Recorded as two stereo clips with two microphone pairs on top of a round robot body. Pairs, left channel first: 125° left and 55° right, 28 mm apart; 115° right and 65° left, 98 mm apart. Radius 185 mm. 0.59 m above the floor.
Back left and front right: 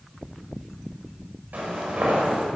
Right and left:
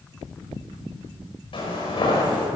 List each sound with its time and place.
1.5 s footsteps: 80° right, 5.5 m